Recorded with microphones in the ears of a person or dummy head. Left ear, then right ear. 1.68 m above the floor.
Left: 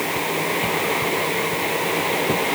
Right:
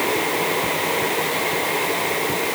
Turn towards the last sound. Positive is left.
No sound to turn to.